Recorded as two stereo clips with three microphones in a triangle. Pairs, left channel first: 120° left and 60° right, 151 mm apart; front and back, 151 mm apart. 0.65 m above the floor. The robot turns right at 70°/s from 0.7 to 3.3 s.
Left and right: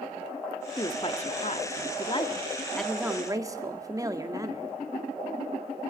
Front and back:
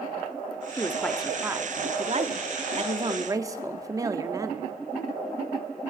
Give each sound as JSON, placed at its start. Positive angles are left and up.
{"t": 0.8, "sound": "a woman speaking", "azimuth_deg": 65, "distance_m": 1.6}